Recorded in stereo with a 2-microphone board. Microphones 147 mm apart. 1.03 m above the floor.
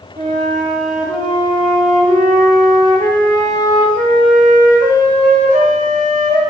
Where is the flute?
65° right (ahead or behind), 1.1 m.